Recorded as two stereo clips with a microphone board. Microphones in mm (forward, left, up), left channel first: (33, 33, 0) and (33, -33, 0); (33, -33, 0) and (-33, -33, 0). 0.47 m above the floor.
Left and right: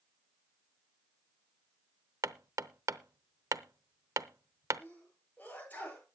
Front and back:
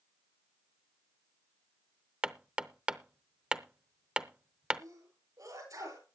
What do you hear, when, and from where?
2.2 s hammering: 110° right, 0.7 m
4.8 s a sneeze: 155° left, 9 m